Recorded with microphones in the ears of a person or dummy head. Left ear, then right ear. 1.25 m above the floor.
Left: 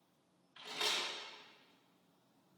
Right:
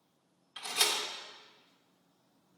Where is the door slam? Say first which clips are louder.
Right 6 dB; 30° right (ahead or behind), 0.8 m.